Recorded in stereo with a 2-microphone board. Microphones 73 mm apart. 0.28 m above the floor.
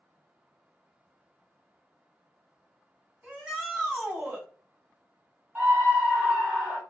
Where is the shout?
15° right (ahead or behind), 1.8 m.